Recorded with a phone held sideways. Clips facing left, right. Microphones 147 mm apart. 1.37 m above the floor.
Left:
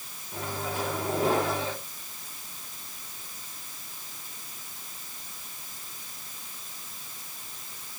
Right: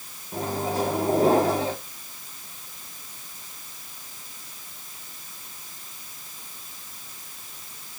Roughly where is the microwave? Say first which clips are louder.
Right 7 dB; right.